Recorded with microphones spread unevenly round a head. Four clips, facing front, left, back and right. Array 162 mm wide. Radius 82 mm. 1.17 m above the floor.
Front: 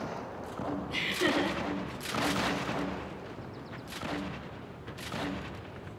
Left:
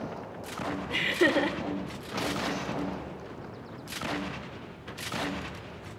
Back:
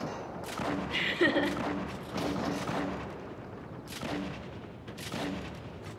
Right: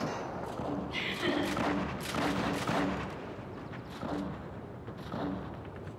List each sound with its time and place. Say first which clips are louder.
0.9 s laughter: left 11 dB, back 2 dB; 110° left, 4 m